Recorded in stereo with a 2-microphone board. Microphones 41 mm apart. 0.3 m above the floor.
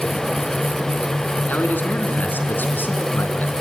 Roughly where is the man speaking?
Left.